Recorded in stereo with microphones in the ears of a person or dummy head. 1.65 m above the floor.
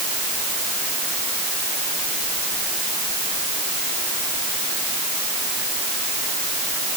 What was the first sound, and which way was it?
Only background noise.